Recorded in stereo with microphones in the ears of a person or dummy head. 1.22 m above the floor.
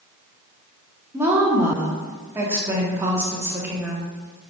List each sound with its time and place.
1.1 s a woman speaking: 10° right (ahead or behind), 0.9 m